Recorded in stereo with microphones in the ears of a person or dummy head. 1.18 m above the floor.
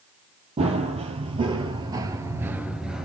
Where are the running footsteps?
30° right (ahead or behind), 1.9 m; by 3.1 s centre (ahead or behind), 1.1 m.